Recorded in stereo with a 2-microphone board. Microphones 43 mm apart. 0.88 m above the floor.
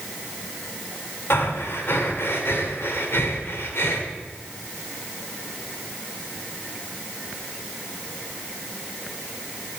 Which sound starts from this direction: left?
Breathing, at 1.3 s.